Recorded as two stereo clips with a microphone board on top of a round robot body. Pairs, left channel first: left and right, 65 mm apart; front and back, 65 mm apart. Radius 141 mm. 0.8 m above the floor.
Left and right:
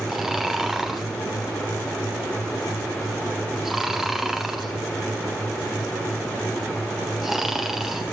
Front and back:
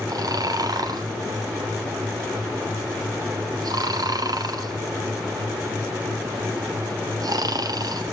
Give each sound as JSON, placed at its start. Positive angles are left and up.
{"t": 0.1, "sound": "snoring", "azimuth_deg": -175, "distance_m": 2.0}